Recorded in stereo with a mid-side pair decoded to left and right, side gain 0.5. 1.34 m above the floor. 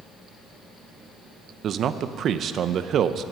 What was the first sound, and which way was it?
A man speaking, 55° right.